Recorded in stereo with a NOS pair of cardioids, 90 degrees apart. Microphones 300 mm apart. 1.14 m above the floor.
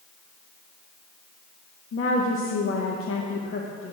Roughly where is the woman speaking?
Ahead left.